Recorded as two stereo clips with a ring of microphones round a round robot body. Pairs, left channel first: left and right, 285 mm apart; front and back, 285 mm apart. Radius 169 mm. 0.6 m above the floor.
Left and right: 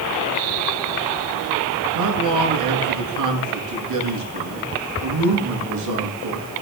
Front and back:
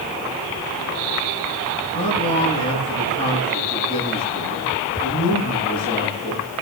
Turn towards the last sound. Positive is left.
turn(degrees=-75)